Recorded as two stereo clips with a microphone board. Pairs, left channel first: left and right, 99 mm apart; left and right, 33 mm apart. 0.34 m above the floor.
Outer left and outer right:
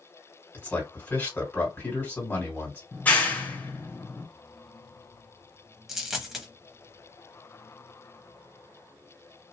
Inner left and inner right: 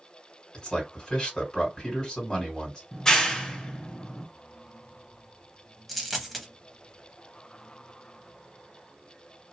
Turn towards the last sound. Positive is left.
turn(degrees=-5)  # may be behind; listen again after turning